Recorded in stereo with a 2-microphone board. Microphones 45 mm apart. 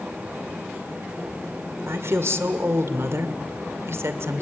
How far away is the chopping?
I don't hear chopping.